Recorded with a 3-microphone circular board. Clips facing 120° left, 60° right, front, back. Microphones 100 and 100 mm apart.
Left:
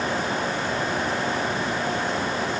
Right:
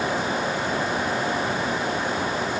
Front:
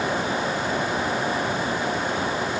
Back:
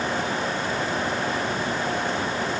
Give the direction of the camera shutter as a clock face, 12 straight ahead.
No camera shutter in this recording.